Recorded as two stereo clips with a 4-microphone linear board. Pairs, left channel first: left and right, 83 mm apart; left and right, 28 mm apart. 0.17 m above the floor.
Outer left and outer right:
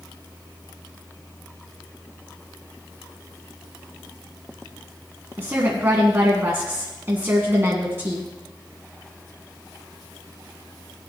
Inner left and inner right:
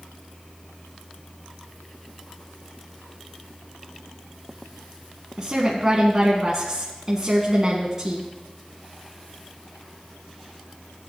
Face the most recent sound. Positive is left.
turn(degrees=-30)  # may be behind; listen again after turning